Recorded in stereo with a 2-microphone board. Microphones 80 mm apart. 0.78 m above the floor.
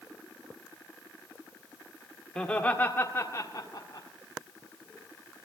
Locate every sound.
2.4 s laughter: 10° left (ahead or behind), 1.8 m; by 4.1 s 55° left (ahead or behind), 1.8 m